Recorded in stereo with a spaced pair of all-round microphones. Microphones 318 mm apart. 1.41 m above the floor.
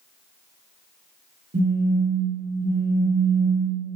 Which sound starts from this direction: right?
A phone buzzing, at 1.5 s.